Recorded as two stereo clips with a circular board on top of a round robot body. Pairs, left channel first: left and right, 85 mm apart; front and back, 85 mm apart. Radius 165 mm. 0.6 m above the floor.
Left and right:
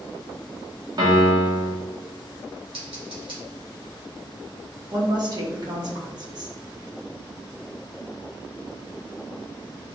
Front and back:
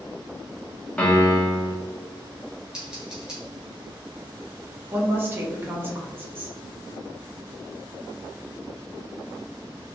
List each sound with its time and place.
1.0 s a piano: 75° right, 1.6 m
2.7 s scissors: 100° right, 2 m
4.9 s a woman speaking: 120° right, 1.8 m